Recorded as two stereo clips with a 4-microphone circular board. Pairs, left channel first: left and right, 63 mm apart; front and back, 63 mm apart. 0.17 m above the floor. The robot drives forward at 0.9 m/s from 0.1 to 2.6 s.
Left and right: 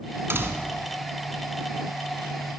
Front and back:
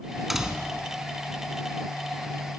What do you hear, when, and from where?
0.3 s a door slam: 95° right, 1.5 m; by 0.8 s 120° right, 1.6 m